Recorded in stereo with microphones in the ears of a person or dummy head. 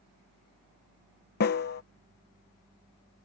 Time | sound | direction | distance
1.4 | a snare drum | 50° left (ahead or behind) | ?